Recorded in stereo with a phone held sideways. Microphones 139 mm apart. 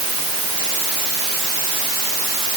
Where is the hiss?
I don't hear a hiss.